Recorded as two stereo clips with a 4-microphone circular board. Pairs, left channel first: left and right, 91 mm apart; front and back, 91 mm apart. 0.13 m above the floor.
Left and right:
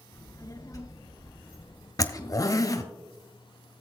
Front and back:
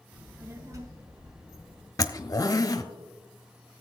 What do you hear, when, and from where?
0.1 s a child speaking: 110° left, 1.4 m; by 1.9 s 150° left, 3 m
2.0 s a zipper: 45° left, 0.8 m